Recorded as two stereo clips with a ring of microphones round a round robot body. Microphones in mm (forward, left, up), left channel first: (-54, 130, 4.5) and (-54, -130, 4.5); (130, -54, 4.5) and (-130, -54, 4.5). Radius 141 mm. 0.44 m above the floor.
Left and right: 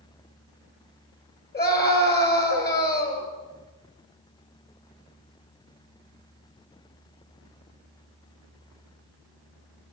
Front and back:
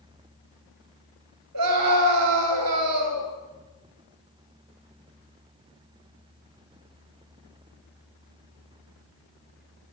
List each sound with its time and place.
1.5 s a scream: 145° left, 7.5 m